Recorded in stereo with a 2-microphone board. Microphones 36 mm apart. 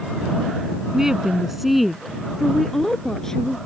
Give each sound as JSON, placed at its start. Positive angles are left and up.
{"t": 0.9, "sound": "a woman speaking", "side_deg": -15}